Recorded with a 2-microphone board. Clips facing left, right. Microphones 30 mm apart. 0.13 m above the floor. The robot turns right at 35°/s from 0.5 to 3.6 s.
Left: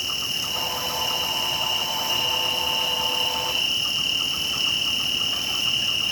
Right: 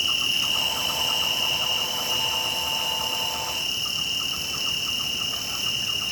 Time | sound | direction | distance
0.0 | an insect | 45° right | 0.9 m